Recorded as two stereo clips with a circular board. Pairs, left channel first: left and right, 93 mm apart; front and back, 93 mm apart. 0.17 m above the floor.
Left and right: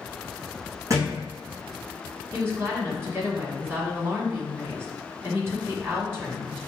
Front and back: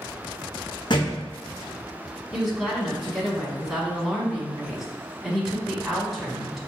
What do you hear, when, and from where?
0.9 s a thud: 35° right, 1.2 m
2.3 s a woman speaking: 95° right, 1.3 m